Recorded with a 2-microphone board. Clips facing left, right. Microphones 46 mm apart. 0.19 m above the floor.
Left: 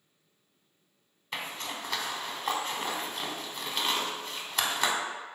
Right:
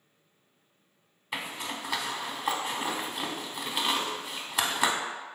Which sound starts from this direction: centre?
A zipper, at 1.3 s.